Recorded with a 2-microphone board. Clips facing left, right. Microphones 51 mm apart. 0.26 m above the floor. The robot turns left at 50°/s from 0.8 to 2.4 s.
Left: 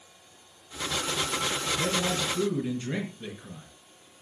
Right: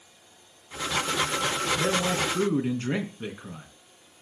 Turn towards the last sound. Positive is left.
turn(degrees=-65)